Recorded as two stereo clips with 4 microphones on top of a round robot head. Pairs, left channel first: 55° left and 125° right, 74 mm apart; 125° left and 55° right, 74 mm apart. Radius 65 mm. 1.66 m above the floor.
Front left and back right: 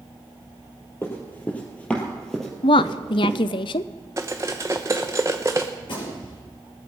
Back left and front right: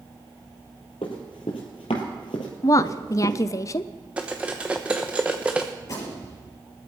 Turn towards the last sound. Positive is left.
turn(degrees=75)